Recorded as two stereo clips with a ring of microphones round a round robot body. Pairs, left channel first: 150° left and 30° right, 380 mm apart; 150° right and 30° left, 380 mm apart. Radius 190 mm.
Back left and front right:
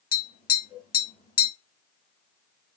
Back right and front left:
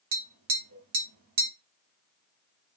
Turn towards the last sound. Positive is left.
turn(degrees=80)